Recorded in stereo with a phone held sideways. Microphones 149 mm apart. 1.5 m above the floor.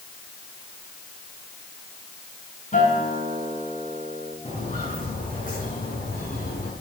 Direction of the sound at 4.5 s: 55° left (ahead or behind).